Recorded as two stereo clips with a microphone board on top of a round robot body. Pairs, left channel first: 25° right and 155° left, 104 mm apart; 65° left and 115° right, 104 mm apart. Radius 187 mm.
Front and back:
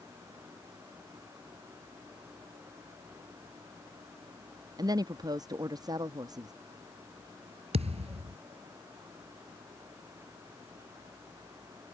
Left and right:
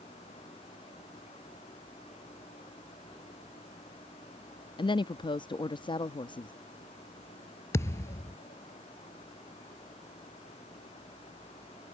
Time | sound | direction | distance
4.8 | a woman speaking | 105° left | ?
7.7 | a thud | 130° left | ?